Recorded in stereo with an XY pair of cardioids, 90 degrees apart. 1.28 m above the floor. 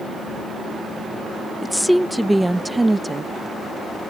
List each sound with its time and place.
1.6 s a woman speaking: 10° left; by 4.1 s 30° right